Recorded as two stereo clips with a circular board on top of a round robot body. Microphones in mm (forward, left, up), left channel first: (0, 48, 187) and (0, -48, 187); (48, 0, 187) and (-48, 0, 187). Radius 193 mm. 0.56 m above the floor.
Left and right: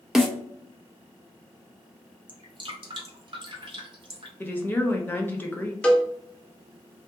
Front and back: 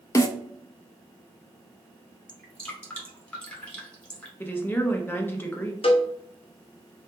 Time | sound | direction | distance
0.1 | a snare drum | 5° right | 0.7 m
2.3 | dripping | 75° right | 1.1 m
4.4 | a woman speaking | 45° left | 0.8 m
5.8 | a cowbell | 10° left | 0.7 m